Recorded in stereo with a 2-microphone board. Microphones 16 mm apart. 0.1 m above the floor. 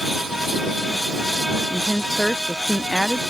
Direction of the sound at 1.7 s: Centre (ahead or behind).